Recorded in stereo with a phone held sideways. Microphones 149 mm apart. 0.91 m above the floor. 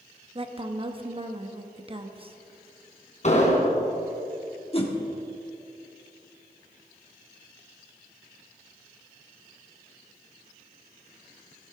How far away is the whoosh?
About 1.4 m.